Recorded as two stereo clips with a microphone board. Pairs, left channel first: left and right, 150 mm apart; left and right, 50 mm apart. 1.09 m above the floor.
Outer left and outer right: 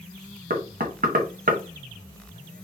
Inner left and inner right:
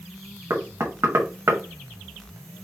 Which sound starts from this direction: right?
Knocking, at 0.5 s.